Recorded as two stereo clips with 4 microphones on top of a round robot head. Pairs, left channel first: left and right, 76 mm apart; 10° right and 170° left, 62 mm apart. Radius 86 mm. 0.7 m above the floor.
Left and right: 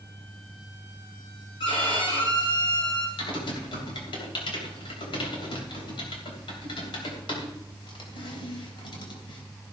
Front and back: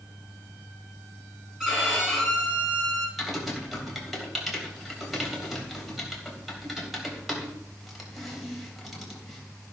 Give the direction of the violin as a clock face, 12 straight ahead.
9 o'clock.